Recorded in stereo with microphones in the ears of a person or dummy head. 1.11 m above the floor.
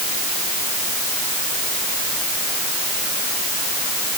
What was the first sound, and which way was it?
Only background noise.